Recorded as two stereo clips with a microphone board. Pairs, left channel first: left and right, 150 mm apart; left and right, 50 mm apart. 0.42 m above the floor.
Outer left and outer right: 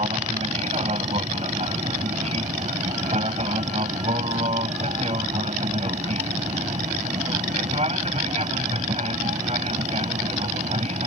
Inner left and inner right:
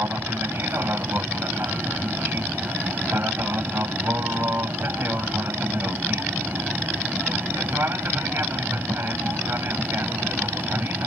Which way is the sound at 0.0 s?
45° right (ahead or behind).